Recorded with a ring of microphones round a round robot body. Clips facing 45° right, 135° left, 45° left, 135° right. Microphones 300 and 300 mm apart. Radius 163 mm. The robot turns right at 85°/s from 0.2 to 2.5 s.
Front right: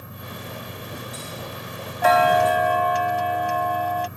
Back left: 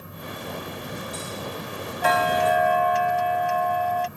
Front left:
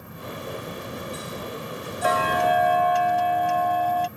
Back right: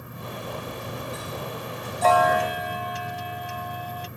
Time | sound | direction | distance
2.0 | ticking | 35° right | ?